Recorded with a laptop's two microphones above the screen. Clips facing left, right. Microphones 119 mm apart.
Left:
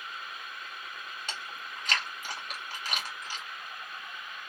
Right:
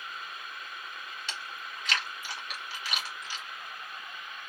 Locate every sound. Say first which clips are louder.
1.3 s chewing: even; 45° left (ahead or behind), 1.8 m